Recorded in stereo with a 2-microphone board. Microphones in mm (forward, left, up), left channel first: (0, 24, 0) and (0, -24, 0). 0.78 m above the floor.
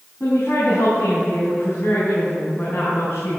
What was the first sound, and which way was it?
A woman speaking, 70° left (ahead or behind).